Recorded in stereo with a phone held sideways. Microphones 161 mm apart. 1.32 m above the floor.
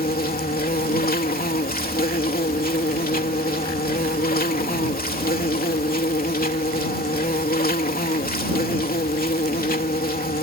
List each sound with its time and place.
0.0 s an insect: 65° left (ahead or behind)